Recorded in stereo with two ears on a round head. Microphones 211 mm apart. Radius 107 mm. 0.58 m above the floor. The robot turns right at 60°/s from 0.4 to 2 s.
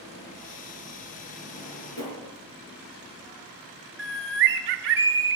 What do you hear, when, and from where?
1.5 s a drawer: 30° left (ahead or behind), 5 m; by 2.2 s 60° left (ahead or behind), 5 m
4.0 s a bird: 45° right (ahead or behind), 0.7 m